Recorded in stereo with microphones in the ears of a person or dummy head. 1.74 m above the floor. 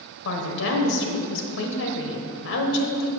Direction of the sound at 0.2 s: 65° left (ahead or behind).